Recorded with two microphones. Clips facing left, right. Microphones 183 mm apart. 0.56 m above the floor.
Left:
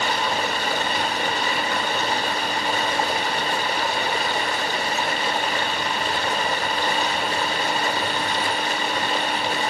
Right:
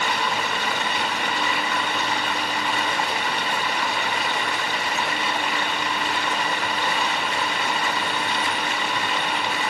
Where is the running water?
40° left (ahead or behind), 1.8 m.